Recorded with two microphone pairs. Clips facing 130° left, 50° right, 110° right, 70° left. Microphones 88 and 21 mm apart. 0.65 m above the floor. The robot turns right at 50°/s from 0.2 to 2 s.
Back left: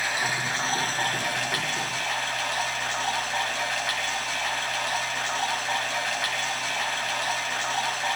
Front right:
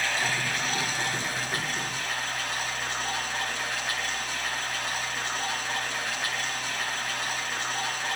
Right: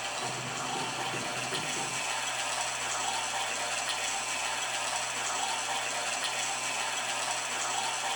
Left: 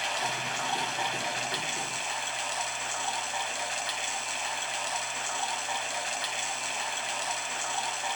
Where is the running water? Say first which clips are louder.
Back left 1 dB, left 4 dB; 50° left, 4 m; by 8.2 s 140° left, 4 m.